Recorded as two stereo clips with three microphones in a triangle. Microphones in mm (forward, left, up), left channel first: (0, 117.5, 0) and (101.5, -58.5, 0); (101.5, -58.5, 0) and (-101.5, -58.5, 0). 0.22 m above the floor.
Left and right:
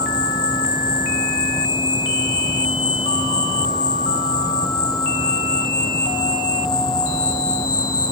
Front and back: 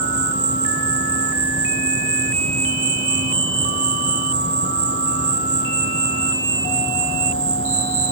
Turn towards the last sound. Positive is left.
turn(degrees=-170)